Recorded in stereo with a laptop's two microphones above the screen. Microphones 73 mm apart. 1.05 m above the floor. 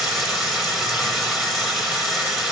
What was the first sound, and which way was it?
Running water, 5° right (ahead or behind).